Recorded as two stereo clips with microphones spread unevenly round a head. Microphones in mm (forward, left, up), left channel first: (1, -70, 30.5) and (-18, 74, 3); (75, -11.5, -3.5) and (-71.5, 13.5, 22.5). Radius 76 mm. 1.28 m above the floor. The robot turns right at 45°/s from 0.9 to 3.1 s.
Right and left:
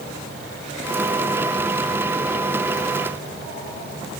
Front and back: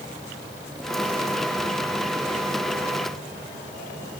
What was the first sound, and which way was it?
Only background noise.